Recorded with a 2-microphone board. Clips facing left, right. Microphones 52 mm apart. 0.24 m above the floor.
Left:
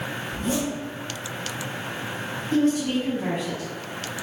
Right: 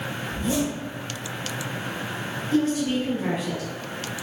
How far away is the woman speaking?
About 1.7 m.